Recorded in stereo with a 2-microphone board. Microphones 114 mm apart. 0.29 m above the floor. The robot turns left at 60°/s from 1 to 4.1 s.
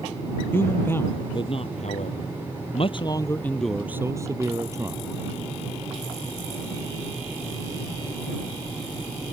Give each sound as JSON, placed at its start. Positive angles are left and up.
{"t": 0.5, "sound": "a man speaking", "azimuth_deg": 160}